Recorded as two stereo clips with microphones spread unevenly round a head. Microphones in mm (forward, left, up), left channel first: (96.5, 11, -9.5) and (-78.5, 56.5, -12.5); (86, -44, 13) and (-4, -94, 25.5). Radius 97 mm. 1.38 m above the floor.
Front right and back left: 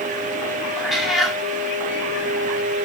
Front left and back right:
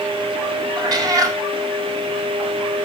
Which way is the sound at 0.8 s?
105° right.